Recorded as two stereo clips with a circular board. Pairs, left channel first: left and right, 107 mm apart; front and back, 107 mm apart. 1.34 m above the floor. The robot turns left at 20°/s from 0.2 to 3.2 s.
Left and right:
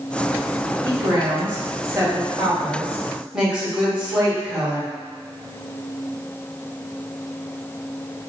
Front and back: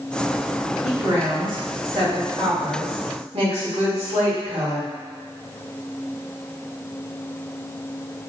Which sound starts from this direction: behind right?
A woman speaking, at 0.8 s.